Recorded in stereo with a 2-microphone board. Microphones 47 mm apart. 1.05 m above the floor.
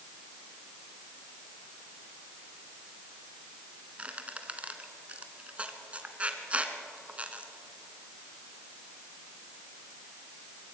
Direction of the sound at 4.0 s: 25° right (ahead or behind).